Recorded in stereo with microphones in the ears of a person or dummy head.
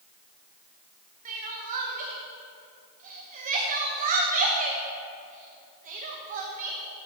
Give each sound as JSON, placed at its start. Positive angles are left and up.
{"t": 1.2, "sound": "crying", "side_deg": -40, "distance_m": 0.9}